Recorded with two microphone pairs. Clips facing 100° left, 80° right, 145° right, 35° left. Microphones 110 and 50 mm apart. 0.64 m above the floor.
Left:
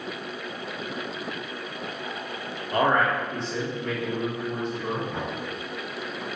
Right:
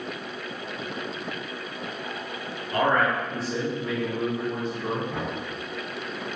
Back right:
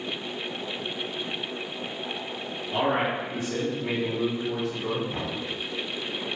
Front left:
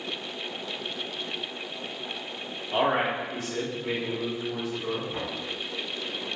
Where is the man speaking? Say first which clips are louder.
Left 1 dB, front left 1 dB; 60° left, 0.9 m; by 5.0 s 125° right, 2.0 m.